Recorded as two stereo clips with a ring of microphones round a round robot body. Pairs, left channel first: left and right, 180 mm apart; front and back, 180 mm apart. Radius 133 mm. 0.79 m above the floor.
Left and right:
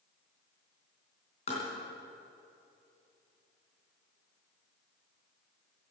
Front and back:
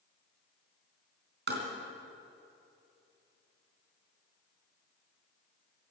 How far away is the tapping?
About 3.5 m.